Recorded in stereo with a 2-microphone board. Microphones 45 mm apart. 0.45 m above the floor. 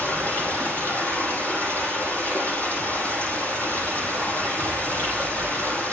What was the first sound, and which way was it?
Running water, 40° left (ahead or behind).